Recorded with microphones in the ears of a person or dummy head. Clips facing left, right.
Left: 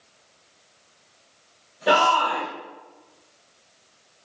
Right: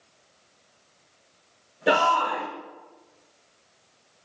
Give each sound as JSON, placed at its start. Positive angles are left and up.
{"t": 1.9, "sound": "a shout", "side_deg": -25, "distance_m": 1.1}